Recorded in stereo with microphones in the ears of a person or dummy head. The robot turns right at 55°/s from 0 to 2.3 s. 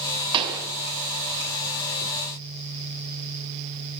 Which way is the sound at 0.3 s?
30° right (ahead or behind).